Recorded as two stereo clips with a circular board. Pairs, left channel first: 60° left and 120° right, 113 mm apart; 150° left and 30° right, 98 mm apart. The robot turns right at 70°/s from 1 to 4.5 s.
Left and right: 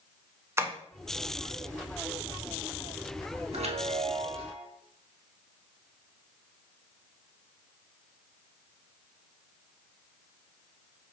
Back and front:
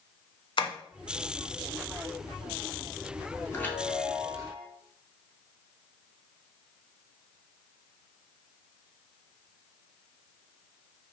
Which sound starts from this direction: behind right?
A chime, at 3.5 s.